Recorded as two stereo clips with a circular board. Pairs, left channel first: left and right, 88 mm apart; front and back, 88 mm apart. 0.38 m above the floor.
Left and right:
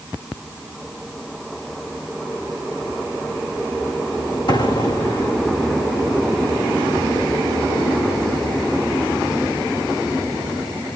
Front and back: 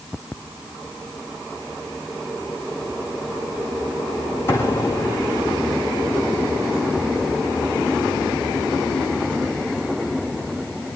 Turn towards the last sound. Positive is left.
turn(degrees=60)